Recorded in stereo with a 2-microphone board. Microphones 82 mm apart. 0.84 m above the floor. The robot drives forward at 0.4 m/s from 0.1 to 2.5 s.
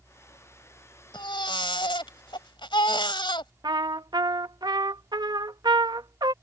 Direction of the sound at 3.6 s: 55° right (ahead or behind).